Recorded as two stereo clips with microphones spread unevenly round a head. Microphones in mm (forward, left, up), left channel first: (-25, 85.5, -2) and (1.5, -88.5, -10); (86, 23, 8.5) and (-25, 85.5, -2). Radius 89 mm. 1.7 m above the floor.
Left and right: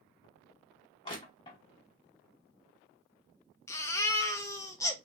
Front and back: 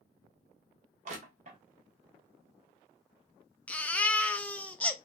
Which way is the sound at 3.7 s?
40° left.